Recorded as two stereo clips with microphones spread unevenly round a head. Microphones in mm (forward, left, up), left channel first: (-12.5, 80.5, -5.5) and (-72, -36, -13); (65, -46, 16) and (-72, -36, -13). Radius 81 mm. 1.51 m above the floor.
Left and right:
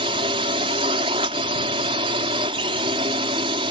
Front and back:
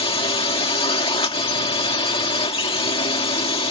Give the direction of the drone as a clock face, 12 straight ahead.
2 o'clock.